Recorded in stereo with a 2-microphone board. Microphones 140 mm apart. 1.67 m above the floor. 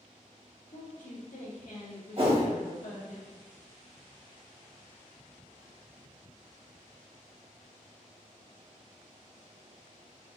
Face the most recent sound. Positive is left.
turn(degrees=-40)  # may be behind; listen again after turning